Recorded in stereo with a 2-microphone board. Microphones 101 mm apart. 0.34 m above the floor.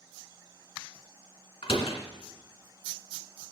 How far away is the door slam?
About 2 m.